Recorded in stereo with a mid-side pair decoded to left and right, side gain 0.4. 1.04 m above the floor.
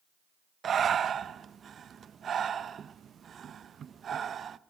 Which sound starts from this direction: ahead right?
Breathing, at 0.6 s.